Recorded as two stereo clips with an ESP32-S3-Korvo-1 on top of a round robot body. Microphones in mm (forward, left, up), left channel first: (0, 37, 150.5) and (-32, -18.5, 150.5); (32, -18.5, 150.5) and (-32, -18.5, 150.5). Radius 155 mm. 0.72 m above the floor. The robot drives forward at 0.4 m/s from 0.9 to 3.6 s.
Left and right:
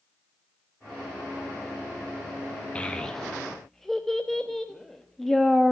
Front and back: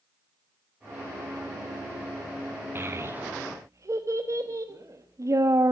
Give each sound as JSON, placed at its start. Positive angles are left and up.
{"t": 2.8, "sound": "a child speaking", "azimuth_deg": 130, "distance_m": 1.1}